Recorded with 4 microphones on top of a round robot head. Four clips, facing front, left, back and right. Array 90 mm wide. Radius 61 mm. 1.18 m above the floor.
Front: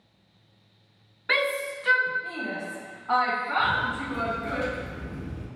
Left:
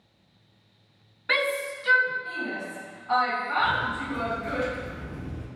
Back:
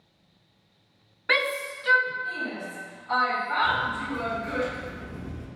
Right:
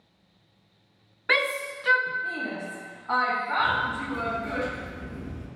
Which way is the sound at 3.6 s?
30° right.